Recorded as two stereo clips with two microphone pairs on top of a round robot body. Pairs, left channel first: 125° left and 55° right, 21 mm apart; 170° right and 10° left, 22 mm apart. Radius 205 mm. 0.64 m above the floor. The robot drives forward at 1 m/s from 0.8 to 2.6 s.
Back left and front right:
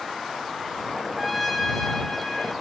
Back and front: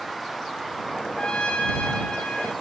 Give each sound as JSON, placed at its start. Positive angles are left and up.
{"t": 1.2, "sound": "a trumpet", "azimuth_deg": -135, "distance_m": 0.7}